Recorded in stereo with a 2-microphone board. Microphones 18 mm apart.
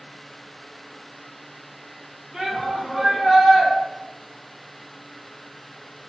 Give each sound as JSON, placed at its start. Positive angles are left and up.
{"t": 2.3, "sound": "a shout", "side_deg": -45, "distance_m": 1.2}